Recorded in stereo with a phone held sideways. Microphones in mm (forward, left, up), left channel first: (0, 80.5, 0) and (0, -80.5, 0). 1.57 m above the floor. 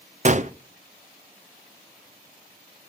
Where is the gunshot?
50° right (ahead or behind), 0.5 m.